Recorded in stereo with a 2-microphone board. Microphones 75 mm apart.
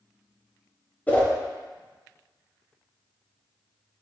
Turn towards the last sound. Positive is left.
turn(degrees=20)  # may be behind; listen again after turning